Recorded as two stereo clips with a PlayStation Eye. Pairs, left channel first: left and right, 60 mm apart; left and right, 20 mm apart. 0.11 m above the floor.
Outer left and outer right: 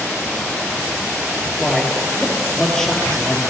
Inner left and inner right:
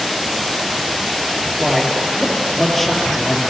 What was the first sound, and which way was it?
A man speaking, 5° left (ahead or behind).